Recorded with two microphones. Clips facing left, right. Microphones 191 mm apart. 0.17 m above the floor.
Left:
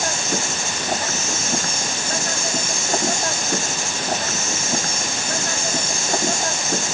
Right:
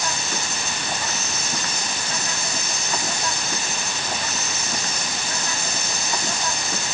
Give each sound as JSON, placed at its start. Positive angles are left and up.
{"t": 0.0, "sound": "an insect", "side_deg": 50}